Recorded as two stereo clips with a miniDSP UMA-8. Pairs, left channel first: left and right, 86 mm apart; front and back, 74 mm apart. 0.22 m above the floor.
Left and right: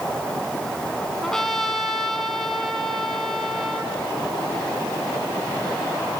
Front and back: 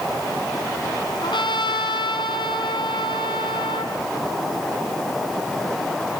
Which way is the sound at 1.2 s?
5° left.